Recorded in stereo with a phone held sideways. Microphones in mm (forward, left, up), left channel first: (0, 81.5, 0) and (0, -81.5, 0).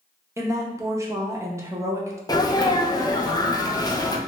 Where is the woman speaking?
20° right (ahead or behind), 0.6 m.